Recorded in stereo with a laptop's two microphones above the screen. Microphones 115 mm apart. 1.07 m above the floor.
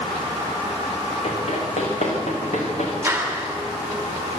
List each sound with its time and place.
1.2 s running footsteps: 60° left (ahead or behind), 6 m; by 2.9 s 75° left (ahead or behind), 6 m
3.0 s a clap: 15° right (ahead or behind), 2.5 m